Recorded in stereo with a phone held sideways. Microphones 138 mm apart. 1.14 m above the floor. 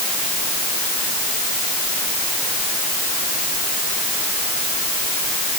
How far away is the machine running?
No machine running in this recording.